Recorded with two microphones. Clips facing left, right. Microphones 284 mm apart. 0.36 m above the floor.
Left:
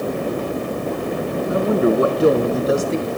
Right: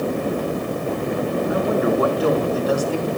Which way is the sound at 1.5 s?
30° left (ahead or behind).